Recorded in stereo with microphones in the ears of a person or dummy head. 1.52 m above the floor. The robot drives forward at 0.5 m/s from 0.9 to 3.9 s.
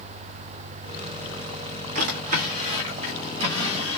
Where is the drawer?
45° right (ahead or behind), 1.4 m; by 4.0 s 25° right (ahead or behind), 2 m.